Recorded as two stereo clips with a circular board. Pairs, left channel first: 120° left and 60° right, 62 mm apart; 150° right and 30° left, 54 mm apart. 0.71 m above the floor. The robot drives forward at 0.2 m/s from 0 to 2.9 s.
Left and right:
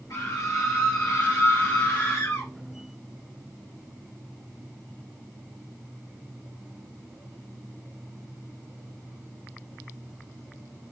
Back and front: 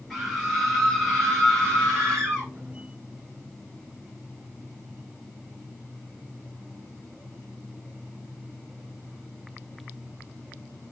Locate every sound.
0.1 s a scream: 120° left, 3 m; by 2.5 s 130° left, 3 m